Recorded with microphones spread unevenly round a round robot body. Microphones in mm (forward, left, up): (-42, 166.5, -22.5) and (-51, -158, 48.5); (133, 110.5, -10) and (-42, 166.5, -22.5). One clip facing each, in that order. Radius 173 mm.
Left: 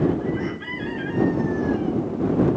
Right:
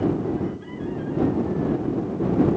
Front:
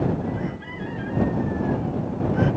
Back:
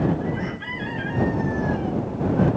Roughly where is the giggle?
I don't hear a giggle.